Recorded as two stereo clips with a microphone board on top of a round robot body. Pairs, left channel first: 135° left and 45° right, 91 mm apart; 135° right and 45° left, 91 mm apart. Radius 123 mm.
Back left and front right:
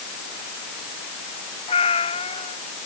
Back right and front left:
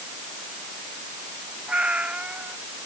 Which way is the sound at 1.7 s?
125° left.